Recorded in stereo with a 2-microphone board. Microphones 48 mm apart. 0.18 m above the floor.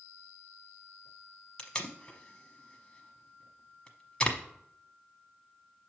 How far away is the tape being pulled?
About 0.8 m.